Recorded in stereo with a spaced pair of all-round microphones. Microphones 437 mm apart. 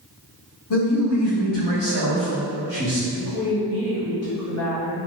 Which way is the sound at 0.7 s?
65° left (ahead or behind).